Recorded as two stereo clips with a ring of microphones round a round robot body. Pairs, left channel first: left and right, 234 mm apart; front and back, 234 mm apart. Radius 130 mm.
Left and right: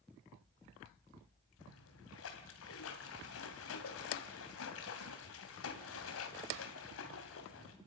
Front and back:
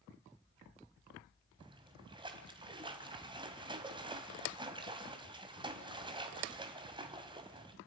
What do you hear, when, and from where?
1.6 s a splash: 110° left, 2.5 m